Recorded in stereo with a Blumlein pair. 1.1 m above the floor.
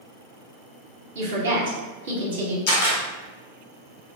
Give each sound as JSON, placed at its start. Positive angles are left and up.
{"t": 1.1, "sound": "a woman speaking", "azimuth_deg": -60, "distance_m": 1.2}
{"t": 2.7, "sound": "a camera shutter", "azimuth_deg": 50, "distance_m": 0.9}